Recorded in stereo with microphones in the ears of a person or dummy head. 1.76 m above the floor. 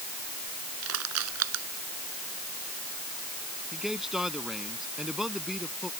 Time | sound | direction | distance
0.8 | crushing | 75° right (ahead or behind) | ?
3.7 | a man speaking | 5° right (ahead or behind) | ?